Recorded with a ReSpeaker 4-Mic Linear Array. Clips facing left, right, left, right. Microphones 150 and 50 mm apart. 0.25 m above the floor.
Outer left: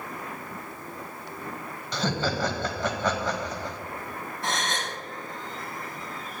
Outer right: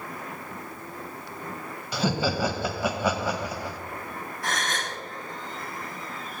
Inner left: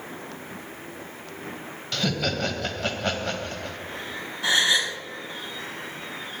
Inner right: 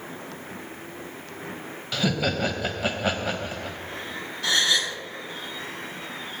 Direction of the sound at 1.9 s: 10° right (ahead or behind).